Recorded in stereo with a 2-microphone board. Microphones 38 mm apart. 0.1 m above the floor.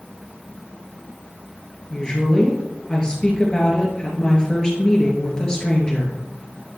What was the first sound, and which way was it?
A woman speaking, 20° left (ahead or behind).